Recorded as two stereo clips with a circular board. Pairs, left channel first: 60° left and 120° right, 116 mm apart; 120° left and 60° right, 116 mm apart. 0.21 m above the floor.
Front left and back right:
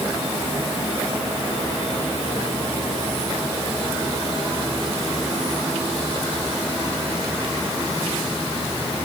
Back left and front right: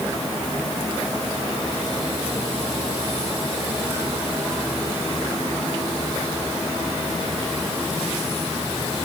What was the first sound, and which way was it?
Only background noise.